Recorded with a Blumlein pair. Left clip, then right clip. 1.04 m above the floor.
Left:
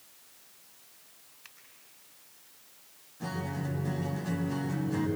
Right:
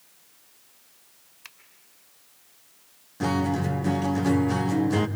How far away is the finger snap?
About 3.5 m.